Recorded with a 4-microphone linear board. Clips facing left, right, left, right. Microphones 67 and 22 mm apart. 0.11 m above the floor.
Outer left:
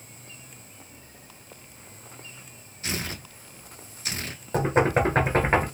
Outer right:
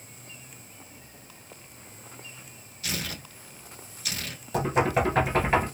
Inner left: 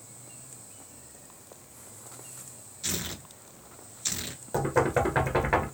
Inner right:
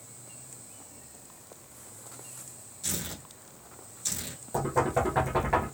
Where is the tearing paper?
30° left (ahead or behind), 0.7 m.